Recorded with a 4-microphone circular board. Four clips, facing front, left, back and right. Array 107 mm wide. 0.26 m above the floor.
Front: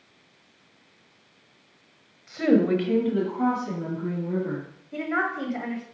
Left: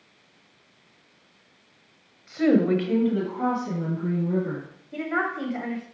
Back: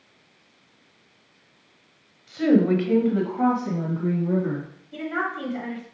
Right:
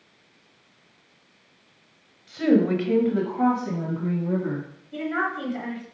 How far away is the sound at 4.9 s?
About 1.5 m.